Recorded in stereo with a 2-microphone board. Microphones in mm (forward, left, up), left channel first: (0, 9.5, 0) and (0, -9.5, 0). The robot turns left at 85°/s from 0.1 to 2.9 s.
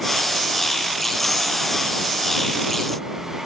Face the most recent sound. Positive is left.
No sound to turn to.